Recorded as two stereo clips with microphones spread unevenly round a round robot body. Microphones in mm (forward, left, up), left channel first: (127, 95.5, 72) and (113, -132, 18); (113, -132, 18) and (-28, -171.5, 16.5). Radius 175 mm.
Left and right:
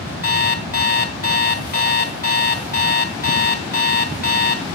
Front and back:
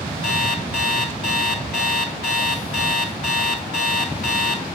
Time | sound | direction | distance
0.2 | an alarm clock | 40° left | 3 m